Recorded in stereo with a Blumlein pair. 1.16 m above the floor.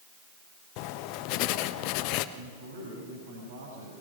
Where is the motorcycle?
No motorcycle in this recording.